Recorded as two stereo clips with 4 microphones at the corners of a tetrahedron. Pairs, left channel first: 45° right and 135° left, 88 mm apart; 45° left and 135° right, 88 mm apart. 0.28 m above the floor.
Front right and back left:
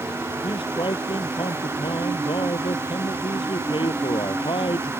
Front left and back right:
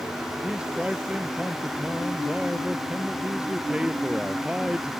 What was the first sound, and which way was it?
A man speaking, 55° right.